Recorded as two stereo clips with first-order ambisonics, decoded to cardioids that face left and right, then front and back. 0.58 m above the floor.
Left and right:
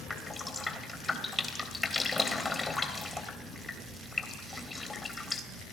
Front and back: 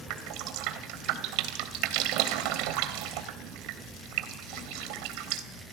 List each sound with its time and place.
0.1 s dripping: 170° left, 2.5 m